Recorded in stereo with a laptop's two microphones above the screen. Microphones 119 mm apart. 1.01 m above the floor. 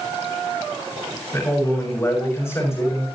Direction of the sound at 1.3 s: 25° left (ahead or behind).